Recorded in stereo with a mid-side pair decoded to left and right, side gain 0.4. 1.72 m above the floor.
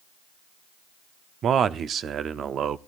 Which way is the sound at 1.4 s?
65° right.